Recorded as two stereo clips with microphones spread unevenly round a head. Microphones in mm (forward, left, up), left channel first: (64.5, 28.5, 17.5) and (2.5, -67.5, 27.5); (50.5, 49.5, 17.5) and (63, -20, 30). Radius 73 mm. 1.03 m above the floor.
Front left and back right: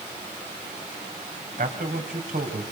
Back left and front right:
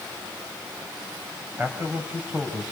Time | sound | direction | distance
1.6 | a man speaking | 160° right | 5 m